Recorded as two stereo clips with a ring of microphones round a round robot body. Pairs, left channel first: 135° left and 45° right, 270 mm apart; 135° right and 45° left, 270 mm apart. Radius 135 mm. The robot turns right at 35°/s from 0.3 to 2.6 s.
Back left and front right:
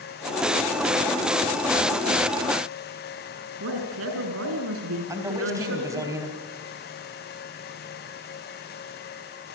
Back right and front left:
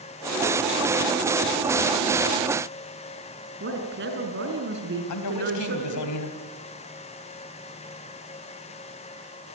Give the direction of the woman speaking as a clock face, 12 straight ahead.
12 o'clock.